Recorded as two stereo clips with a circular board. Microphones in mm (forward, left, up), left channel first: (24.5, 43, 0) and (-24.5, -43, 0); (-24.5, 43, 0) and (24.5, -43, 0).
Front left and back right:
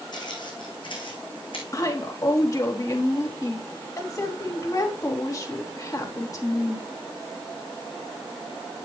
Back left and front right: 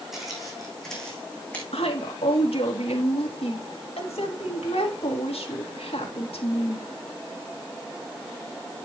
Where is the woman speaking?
115° left, 2.5 m.